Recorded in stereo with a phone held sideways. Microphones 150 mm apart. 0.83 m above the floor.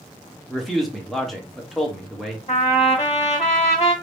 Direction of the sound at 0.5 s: Centre (ahead or behind).